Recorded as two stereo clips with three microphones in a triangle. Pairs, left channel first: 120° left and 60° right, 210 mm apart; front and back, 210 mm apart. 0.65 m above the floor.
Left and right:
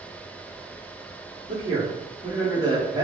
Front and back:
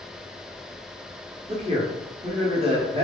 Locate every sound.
1.5 s a man speaking: 125° right, 0.8 m